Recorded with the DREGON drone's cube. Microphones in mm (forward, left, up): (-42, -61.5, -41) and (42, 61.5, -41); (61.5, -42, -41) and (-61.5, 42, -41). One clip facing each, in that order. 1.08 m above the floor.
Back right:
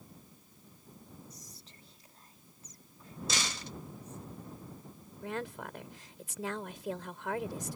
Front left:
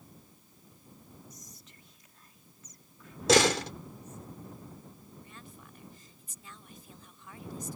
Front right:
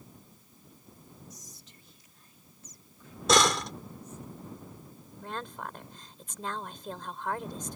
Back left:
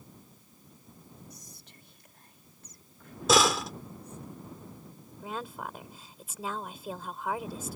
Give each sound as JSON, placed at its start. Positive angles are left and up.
{"t": 1.3, "sound": "whispering", "azimuth_deg": 175}
{"t": 3.3, "sound": "a door slam", "azimuth_deg": 60}
{"t": 5.2, "sound": "a woman speaking", "azimuth_deg": -130}